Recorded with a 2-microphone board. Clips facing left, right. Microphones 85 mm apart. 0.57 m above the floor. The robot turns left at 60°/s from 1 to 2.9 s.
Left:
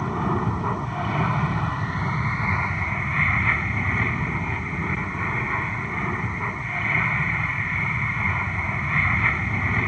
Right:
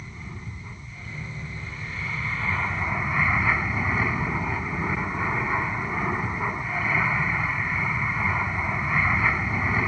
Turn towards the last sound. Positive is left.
turn(degrees=-10)